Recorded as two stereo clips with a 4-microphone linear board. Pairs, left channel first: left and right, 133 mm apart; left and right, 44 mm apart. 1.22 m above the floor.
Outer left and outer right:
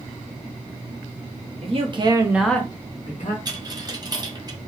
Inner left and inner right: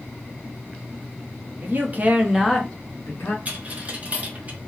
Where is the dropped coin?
30° right (ahead or behind), 0.8 m.